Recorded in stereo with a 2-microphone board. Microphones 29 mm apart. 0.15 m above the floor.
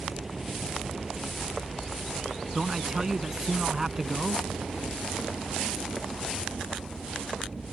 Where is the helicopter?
15° right (ahead or behind).